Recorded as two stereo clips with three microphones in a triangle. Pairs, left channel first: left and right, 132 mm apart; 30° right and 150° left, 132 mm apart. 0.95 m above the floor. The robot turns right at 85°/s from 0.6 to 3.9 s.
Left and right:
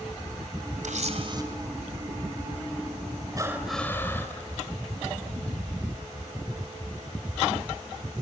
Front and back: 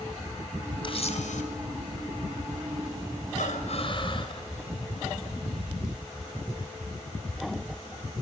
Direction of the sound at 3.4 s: 30° right.